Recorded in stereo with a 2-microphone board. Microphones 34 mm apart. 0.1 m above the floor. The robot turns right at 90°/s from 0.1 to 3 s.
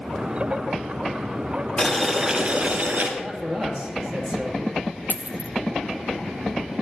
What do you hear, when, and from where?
1.8 s boiling: 155° left, 1.8 m; by 3.1 s 95° right, 1.8 m
3.2 s a man speaking: 35° right (ahead or behind), 2.5 m
5.1 s a dropped coin: 65° right (ahead or behind), 0.6 m